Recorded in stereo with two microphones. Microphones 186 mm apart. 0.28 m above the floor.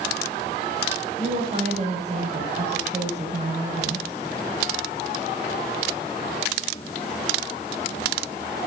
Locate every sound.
1.2 s a woman speaking: 40° right (ahead or behind), 7.5 m